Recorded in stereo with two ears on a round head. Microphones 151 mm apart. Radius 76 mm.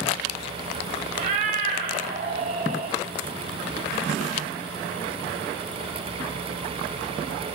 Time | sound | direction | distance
1.1 | a cat meowing | 50° right (ahead or behind) | 1.4 m